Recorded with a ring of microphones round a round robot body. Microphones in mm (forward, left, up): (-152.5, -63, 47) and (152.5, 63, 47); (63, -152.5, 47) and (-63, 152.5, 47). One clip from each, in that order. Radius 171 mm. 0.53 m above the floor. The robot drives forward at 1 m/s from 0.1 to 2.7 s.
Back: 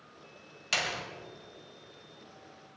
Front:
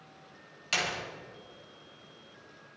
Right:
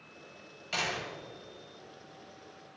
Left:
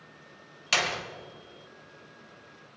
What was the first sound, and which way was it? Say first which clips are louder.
A door slam: even, left 6 dB; 120° left.